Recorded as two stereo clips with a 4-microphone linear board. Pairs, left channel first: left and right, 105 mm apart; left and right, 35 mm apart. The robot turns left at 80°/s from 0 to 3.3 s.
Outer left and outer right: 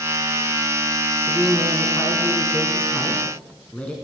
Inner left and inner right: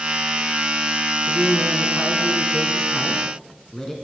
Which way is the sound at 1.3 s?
5° right (ahead or behind).